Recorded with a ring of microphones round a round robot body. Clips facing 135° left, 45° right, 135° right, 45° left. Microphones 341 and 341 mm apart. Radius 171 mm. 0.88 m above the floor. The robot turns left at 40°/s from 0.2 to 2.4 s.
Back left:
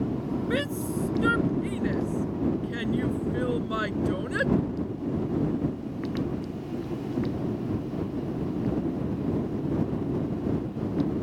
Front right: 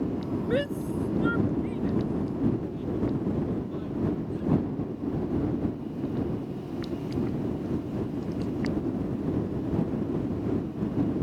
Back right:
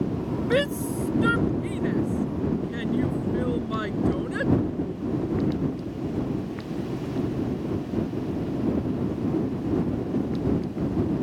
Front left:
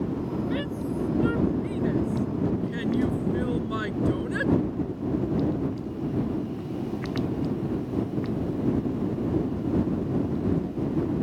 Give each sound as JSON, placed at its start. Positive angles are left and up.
{"t": 0.5, "sound": "a shout", "azimuth_deg": -155}